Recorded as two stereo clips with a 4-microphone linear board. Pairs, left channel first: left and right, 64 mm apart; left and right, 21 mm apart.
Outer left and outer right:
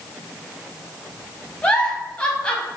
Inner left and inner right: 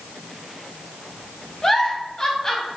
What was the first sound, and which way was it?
A giggle, 15° left (ahead or behind).